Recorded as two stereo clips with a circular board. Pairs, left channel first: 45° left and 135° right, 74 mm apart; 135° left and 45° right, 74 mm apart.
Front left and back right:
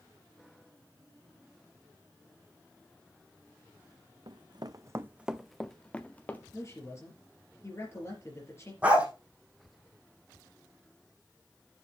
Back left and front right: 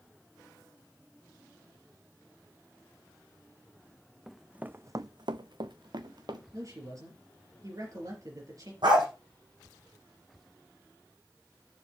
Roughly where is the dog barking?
Ahead right.